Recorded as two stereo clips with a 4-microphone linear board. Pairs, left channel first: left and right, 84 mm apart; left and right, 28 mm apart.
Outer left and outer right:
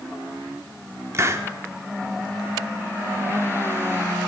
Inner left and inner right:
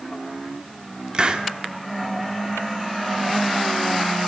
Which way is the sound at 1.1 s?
35° right (ahead or behind).